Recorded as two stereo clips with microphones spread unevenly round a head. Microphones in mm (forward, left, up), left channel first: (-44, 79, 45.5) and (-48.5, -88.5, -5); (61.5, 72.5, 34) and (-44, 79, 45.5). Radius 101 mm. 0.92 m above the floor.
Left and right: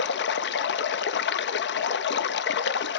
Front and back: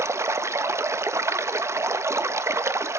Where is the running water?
110° left, 0.9 m.